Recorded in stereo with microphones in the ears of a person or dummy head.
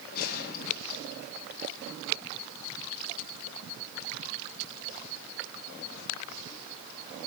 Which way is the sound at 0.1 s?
55° left (ahead or behind).